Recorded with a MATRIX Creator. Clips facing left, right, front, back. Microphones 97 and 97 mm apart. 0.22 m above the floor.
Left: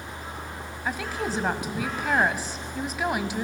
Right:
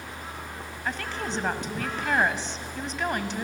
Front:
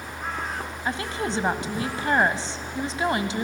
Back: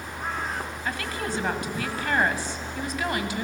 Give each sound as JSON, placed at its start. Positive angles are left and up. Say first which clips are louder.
{"t": 0.8, "sound": "a woman speaking", "louder": "left 3 dB, front 4 dB", "azimuth_deg": 15, "distance_m": 1.0}